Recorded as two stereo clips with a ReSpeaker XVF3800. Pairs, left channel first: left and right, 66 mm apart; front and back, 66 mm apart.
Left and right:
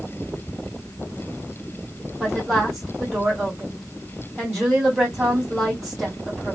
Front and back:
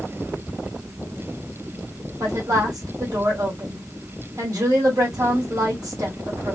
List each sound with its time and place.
2.2 s a woman speaking: 175° right, 2.0 m